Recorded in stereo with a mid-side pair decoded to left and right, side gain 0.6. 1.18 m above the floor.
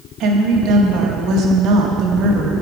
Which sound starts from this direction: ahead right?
A woman speaking, at 0.2 s.